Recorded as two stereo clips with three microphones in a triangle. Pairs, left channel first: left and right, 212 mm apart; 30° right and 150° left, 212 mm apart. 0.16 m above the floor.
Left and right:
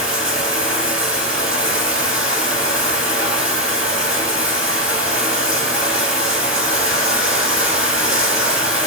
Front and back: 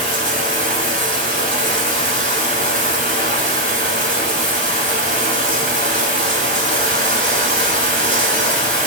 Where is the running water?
175° right, 1.3 m.